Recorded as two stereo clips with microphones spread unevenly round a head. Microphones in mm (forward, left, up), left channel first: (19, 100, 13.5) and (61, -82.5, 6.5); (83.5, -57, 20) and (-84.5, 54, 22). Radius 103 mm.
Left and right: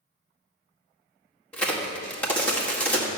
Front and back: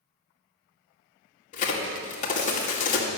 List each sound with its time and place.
1.5 s a crack: 20° left, 2.0 m